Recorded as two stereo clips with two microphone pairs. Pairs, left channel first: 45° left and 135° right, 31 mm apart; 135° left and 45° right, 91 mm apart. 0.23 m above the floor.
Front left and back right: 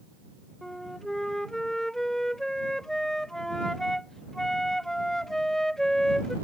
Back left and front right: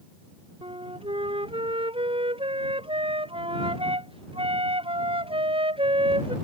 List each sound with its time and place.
0.6 s a flute: 35° right